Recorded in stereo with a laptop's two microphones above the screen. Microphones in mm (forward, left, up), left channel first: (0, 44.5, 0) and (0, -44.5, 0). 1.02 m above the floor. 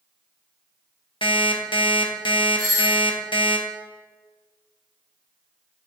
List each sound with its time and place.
1.2 s an alarm clock: 70° left (ahead or behind), 0.8 m
2.6 s a doorbell: 20° left (ahead or behind), 1.6 m